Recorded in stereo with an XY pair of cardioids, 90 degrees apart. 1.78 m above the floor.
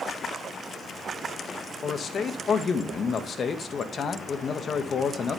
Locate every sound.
1.8 s a man speaking: 55° left, 1.9 m